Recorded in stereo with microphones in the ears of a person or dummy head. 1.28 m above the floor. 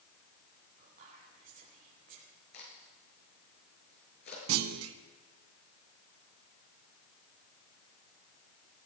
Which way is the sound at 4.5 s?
75° right (ahead or behind).